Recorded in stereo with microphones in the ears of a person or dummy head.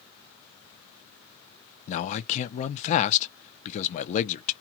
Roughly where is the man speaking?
Left.